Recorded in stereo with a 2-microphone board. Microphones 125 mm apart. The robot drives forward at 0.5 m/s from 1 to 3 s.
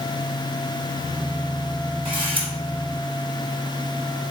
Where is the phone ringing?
I don't hear a phone ringing.